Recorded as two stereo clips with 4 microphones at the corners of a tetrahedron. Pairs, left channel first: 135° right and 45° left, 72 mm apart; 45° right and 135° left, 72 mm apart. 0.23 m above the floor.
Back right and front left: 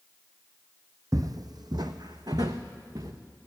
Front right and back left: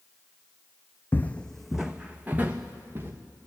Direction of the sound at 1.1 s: 15° left.